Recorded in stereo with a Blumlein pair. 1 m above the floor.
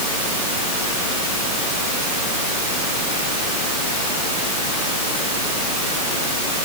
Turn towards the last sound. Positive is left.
No sound to turn to.